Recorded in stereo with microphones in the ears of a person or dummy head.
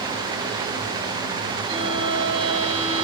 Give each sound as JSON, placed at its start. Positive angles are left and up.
{"t": 1.7, "sound": "a violin", "side_deg": -35, "distance_m": 8.5}